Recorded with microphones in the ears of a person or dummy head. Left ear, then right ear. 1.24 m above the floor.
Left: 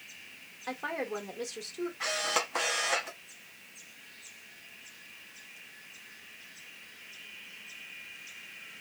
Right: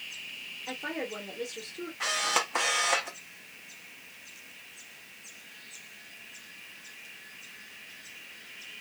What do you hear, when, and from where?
0.7 s a woman speaking: 40° left (ahead or behind), 1.2 m
2.0 s a camera shutter: centre (ahead or behind), 0.7 m